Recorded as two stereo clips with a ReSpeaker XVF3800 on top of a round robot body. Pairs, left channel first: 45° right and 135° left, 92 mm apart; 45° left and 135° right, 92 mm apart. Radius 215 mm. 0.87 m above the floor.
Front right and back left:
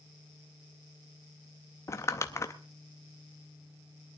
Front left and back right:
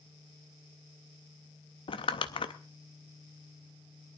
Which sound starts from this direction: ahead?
Crumpling, at 1.9 s.